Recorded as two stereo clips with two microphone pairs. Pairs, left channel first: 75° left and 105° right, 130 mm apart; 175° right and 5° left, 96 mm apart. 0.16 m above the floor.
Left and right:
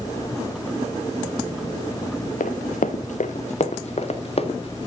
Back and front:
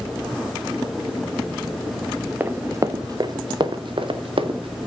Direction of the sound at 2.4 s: 80° left.